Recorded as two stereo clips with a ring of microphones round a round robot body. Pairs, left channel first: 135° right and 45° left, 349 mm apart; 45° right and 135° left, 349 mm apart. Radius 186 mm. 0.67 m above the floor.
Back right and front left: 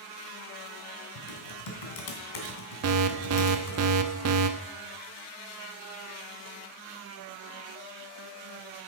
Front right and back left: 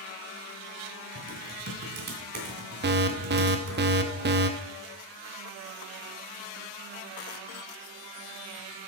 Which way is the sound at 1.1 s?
160° right.